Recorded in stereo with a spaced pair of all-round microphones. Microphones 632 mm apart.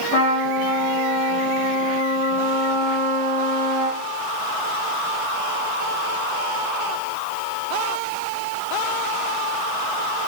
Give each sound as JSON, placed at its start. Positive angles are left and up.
{"t": 0.1, "sound": "a trumpet", "side_deg": 55, "distance_m": 4.0}